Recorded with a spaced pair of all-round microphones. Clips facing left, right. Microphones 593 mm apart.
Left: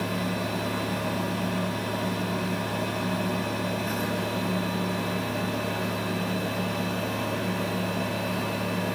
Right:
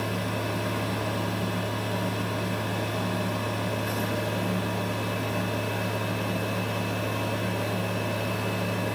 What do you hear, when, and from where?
0.0 s a fan: 70° right (ahead or behind), 3.5 m